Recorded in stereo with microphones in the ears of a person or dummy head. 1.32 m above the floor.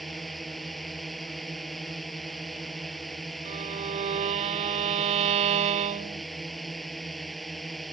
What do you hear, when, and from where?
0.0 s a drone: centre (ahead or behind)
3.5 s a violin: 35° right (ahead or behind)